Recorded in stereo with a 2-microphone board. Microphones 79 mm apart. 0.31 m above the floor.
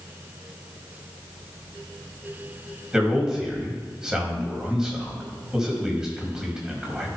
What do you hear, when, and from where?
2.9 s a man speaking: 10° right (ahead or behind), 2 m